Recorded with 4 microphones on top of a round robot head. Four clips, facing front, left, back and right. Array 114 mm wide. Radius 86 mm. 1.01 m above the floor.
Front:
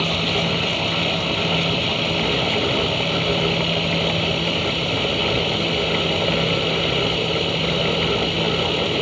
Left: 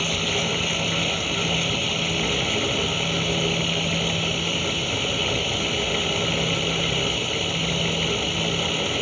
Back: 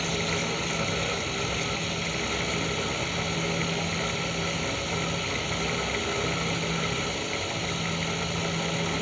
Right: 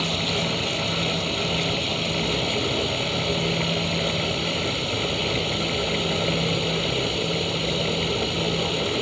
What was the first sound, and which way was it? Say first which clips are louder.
Running water: even, front 7 dB; 25° right.